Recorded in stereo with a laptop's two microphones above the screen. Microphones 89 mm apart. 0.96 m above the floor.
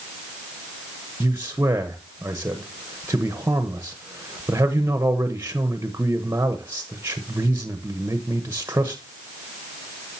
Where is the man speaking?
25° right (ahead or behind), 0.9 m.